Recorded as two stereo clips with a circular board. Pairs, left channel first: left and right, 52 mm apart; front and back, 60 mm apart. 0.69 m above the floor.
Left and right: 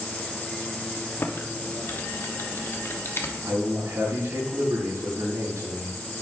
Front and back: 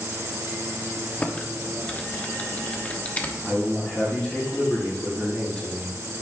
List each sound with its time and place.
1.2 s typing on a keyboard: 65° left, 1.1 m
3.5 s a man speaking: 70° right, 5 m